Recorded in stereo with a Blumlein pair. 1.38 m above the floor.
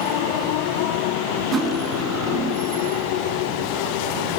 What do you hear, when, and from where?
1.5 s cutlery clinking: 25° right, 1.4 m